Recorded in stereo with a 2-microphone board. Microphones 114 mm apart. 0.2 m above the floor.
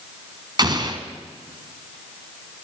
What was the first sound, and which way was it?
An explosion, 40° right (ahead or behind).